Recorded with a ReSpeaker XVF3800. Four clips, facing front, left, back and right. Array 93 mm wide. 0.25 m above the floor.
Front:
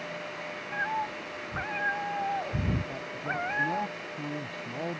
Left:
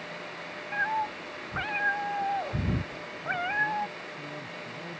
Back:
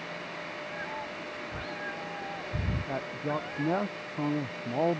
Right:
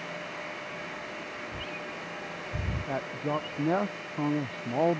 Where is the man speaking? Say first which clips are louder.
Right 4 dB, back 2 dB; 120° right.